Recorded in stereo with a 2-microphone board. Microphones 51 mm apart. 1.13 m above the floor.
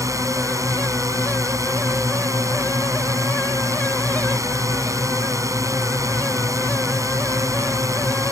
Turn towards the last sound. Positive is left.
turn(degrees=-80)